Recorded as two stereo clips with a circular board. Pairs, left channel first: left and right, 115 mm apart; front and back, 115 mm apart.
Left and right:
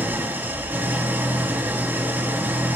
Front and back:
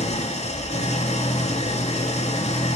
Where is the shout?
I don't hear a shout.